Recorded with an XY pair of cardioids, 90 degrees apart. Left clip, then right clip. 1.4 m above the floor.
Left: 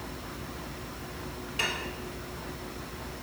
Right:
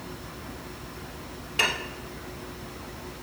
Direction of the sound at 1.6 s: 55° right.